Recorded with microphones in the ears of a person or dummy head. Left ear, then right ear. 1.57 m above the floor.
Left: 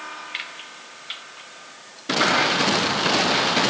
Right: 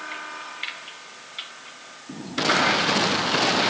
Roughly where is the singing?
No singing in this recording.